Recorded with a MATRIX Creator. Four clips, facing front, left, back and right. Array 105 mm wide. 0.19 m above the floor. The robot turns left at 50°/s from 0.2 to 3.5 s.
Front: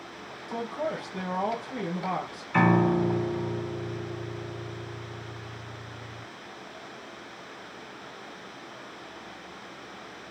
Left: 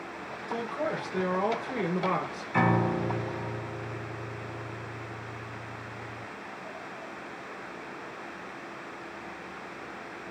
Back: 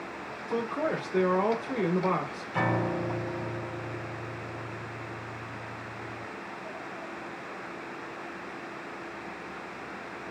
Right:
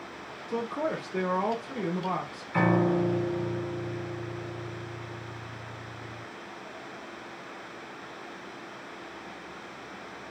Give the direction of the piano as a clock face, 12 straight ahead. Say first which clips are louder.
Right 2 dB, front 6 dB; 12 o'clock.